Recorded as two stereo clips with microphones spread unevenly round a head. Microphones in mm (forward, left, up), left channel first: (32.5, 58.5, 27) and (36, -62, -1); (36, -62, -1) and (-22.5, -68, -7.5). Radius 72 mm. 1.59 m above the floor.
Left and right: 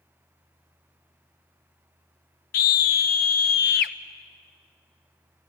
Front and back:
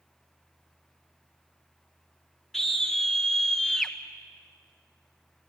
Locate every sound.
2.5 s a scream: 95° left, 0.9 m